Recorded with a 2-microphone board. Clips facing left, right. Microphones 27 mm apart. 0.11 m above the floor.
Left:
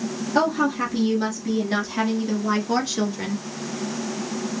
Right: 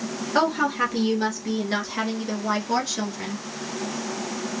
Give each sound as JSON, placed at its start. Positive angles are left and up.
{"t": 0.3, "sound": "a woman speaking", "side_deg": -25, "distance_m": 1.8}